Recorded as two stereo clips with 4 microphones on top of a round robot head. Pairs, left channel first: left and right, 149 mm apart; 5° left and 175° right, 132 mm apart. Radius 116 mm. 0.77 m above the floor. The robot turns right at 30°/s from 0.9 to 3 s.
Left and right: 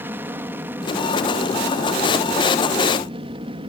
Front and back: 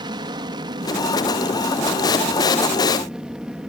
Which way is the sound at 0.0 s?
160° right.